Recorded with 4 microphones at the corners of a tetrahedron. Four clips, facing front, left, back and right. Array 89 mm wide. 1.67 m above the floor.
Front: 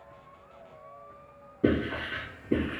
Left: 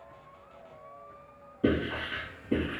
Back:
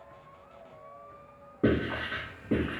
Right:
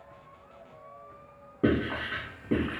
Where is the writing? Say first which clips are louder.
Right 1 dB, front 1 dB; 125° right, 2 m.